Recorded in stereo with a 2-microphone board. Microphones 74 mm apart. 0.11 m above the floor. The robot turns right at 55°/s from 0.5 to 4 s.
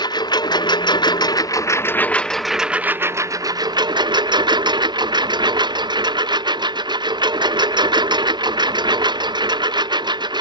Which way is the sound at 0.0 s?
70° left.